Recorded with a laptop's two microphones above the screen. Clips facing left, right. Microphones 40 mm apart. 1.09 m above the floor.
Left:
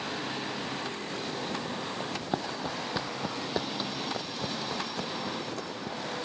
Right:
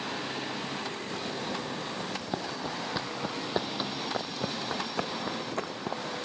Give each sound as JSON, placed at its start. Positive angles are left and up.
{"t": 2.0, "sound": "running footsteps", "side_deg": 20}